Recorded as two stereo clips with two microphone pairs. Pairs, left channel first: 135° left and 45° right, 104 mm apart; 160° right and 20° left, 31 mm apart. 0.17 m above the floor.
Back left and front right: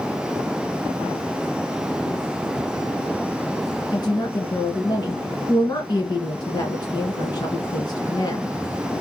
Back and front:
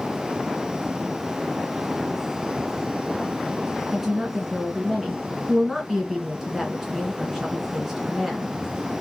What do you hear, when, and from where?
3.9 s a woman speaking: 100° left, 1.9 m